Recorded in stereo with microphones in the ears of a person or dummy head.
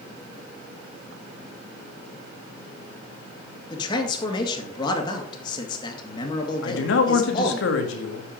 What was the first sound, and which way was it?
A man speaking, 30° left (ahead or behind).